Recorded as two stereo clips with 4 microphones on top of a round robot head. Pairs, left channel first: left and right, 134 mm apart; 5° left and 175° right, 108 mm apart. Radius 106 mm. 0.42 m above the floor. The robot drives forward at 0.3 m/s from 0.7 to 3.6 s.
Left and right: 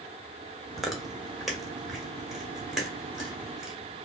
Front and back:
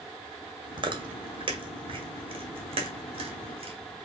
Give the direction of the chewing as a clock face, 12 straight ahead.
6 o'clock.